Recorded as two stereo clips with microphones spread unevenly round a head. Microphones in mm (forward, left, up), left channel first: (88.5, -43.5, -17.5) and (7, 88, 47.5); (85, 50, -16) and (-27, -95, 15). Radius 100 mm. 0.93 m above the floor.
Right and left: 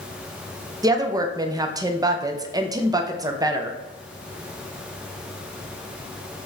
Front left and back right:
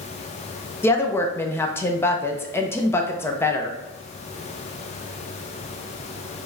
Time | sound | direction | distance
0.8 | a woman speaking | 30° left | 0.5 m